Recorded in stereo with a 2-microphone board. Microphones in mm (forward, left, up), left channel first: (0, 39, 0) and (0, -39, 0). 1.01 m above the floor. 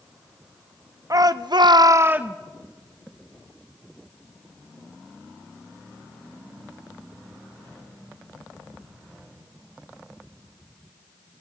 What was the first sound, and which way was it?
A shout, 45° right (ahead or behind).